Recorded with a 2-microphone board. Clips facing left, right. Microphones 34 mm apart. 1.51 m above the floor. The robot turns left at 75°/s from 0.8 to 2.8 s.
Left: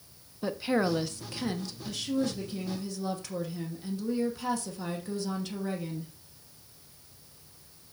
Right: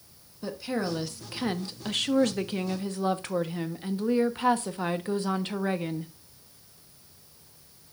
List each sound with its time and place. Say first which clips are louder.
0.4 s a woman speaking: left 3 dB; 20° left, 1.0 m; by 6.1 s 130° right, 1.0 m